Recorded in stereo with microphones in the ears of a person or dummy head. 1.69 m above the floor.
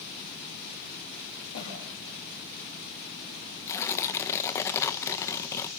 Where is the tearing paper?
10° left (ahead or behind), 1.1 m.